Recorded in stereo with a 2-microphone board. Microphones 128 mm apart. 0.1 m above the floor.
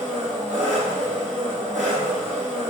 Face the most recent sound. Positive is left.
turn(degrees=-70)  # may be behind; listen again after turning